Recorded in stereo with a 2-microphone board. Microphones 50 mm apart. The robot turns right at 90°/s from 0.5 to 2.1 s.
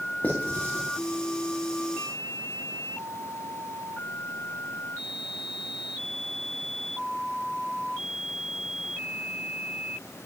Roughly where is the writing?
Left.